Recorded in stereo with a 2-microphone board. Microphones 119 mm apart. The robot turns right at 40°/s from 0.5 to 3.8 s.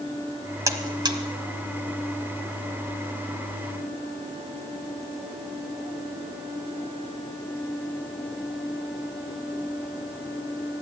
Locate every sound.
0.7 s a buzzer: 30° right (ahead or behind), 1.4 m; by 1.2 s 40° right (ahead or behind), 1.4 m